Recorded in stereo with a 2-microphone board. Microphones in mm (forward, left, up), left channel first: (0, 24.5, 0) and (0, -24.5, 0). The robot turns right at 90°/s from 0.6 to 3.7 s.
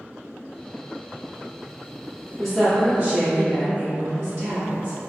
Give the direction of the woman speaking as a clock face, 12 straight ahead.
6 o'clock.